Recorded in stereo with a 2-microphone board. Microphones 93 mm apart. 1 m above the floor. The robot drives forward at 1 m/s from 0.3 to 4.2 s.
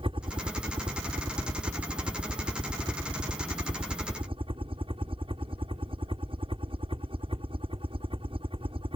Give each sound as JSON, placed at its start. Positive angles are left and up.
{"t": 0.0, "sound": "a helicopter", "side_deg": -60}